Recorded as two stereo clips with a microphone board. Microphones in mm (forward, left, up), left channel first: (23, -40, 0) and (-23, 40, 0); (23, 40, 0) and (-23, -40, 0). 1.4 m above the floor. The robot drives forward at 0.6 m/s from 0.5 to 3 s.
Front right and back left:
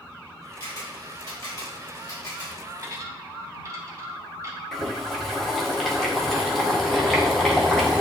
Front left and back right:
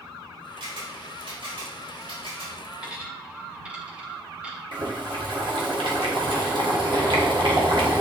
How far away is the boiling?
About 1.6 m.